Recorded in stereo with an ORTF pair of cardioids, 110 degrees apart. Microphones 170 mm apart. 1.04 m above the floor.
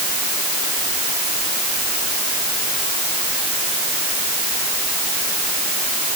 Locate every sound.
Only background noise.